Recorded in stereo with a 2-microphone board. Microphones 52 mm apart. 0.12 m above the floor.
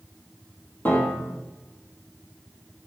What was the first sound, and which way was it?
A piano, 35° left (ahead or behind).